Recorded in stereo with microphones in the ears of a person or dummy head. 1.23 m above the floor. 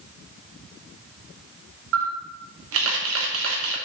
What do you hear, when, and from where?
1.9 s a camera shutter: 75° right (ahead or behind), 1.3 m